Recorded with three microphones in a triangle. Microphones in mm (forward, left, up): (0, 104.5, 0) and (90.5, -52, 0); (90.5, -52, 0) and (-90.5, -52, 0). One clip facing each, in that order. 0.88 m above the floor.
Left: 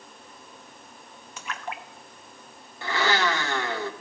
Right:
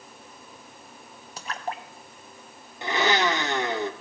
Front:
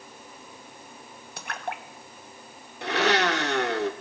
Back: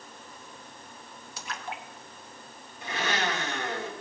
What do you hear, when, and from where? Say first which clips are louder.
1.4 s a splash: right 3 dB, front 4 dB; 10° right, 1.1 m
2.8 s a blender: right 2 dB, front 7 dB; 10° left, 1.2 m